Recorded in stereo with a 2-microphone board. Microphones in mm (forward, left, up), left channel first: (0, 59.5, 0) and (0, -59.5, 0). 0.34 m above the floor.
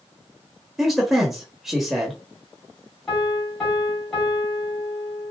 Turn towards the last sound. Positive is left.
turn(degrees=0)  # may be behind; listen again after turning